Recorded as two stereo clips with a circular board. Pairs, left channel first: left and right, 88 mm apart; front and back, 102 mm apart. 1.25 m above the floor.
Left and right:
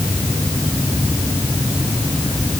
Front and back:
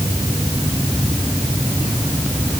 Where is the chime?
No chime in this recording.